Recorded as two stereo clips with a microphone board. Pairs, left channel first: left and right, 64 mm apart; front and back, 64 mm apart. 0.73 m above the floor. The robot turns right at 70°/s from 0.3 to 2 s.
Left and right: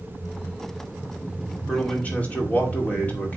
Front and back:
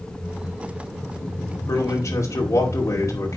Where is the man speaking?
5° left, 2.5 m; by 3.4 s 25° left, 2.5 m.